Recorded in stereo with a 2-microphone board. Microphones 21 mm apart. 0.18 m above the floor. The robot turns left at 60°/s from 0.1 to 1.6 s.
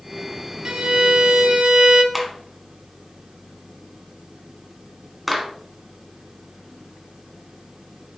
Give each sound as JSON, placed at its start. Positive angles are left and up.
{"t": 0.7, "sound": "a violin", "azimuth_deg": -55, "distance_m": 1.1}
{"t": 2.1, "sound": "a clap", "side_deg": -10, "distance_m": 1.7}